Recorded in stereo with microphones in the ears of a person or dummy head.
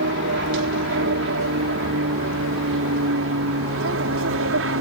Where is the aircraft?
65° right (ahead or behind).